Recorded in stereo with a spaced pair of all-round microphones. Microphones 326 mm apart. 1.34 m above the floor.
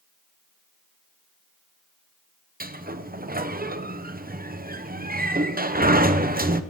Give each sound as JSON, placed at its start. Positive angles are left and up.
{"t": 2.6, "sound": "a sliding door", "side_deg": -25, "distance_m": 0.8}